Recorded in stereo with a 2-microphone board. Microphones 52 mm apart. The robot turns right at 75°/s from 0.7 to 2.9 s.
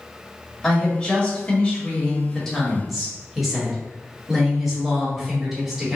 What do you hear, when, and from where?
0.6 s a woman speaking: 10° left (ahead or behind), 1.2 m; by 6.0 s 5° right (ahead or behind), 1.2 m